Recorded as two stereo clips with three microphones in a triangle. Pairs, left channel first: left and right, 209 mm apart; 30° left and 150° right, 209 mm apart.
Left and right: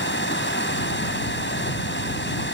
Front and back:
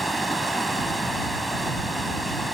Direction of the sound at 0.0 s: 120° left.